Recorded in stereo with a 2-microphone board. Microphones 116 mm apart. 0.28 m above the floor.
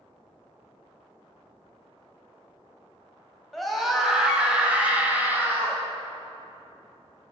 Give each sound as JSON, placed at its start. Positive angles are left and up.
{"t": 3.5, "sound": "a scream", "side_deg": 0, "distance_m": 1.7}